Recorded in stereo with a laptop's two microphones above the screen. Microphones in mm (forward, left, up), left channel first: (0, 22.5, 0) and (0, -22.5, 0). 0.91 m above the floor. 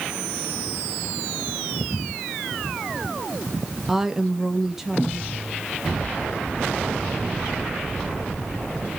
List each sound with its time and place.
3.9 s a woman speaking: 5° right (ahead or behind), 0.9 m